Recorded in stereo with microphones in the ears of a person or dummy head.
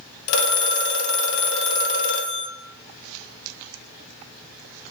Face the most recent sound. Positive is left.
turn(degrees=65)  # may be behind; listen again after turning